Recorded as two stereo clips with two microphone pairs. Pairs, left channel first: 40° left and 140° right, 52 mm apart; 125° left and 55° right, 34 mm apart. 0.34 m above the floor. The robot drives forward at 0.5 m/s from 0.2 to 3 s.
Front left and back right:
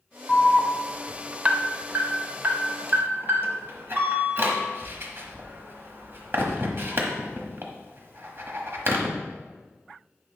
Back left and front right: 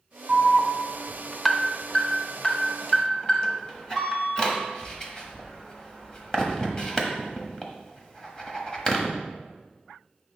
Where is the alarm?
20° right, 0.6 m; by 9.1 s 175° right, 1.2 m.